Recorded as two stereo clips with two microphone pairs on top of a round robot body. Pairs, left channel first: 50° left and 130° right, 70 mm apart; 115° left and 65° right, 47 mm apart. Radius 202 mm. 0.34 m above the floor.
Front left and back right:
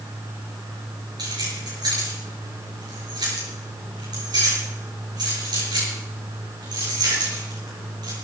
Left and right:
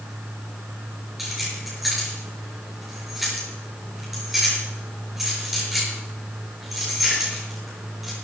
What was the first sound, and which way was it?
Keys jangling, 150° right.